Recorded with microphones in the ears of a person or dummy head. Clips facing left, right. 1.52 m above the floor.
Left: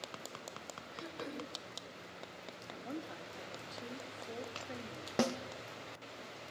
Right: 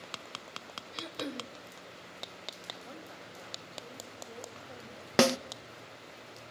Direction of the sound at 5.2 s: 75° right (ahead or behind).